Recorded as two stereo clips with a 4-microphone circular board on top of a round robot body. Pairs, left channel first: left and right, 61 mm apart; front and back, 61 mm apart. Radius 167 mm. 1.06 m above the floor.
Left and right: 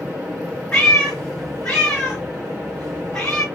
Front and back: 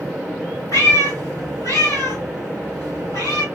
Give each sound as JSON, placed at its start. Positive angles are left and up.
{"t": 0.7, "sound": "a cat meowing", "azimuth_deg": 20, "distance_m": 1.3}